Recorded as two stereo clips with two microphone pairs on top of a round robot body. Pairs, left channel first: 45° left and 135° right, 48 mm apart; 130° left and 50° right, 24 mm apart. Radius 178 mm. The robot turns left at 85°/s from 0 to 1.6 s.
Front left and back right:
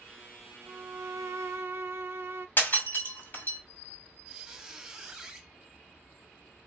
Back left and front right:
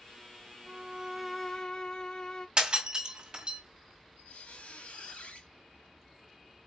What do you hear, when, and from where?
0.7 s a violin: 95° right, 0.6 m; by 2.5 s 175° right, 0.6 m
2.6 s breaking glass: straight ahead, 2.5 m
4.3 s a squeak: 140° left, 1.4 m